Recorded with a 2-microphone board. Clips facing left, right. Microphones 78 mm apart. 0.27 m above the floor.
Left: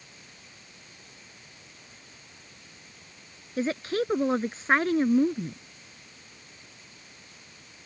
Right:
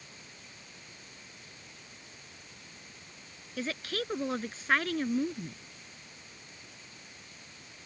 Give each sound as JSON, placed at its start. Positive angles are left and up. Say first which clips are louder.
{"t": 3.6, "sound": "a woman speaking", "louder": "left 8 dB", "side_deg": 30}